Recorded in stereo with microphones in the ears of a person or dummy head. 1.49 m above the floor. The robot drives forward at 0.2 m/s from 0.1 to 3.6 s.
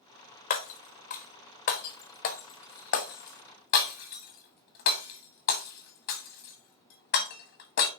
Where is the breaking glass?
45° left (ahead or behind), 1.2 m; by 7.9 s 50° left (ahead or behind), 1.1 m.